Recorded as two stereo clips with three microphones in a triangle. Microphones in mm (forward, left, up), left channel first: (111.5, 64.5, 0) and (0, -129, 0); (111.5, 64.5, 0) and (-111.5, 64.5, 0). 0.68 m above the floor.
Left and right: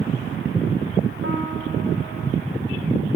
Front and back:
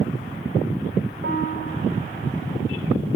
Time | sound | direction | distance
1.2 | a piano | 145° right | 1.4 m